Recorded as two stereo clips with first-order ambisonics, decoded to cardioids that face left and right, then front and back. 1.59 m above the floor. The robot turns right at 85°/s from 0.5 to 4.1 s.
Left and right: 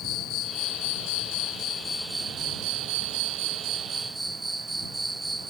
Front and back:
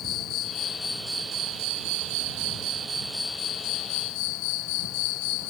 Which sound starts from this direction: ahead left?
An insect, at 0.0 s.